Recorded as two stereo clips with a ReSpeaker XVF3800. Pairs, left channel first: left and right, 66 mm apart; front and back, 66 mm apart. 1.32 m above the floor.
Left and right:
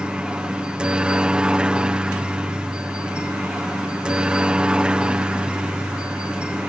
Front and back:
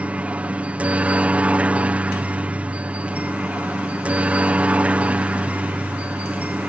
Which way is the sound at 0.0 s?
145° right.